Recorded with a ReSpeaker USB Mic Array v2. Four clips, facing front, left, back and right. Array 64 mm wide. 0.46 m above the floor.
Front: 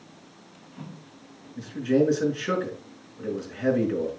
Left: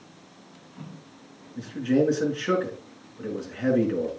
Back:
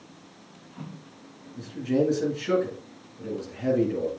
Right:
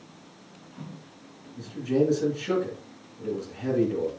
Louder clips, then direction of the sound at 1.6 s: Left 2 dB, front 2 dB; 55° left.